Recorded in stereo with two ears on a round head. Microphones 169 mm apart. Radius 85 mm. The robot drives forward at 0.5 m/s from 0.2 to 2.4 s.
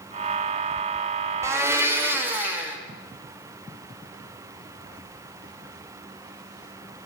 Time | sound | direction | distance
1.4 | a blender | 15° right (ahead or behind) | 1.1 m